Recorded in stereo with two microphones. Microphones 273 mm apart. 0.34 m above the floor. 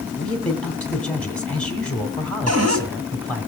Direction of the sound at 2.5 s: 65° right (ahead or behind).